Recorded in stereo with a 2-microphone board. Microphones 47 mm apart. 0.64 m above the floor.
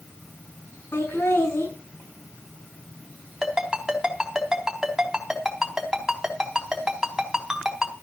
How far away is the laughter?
About 7.5 m.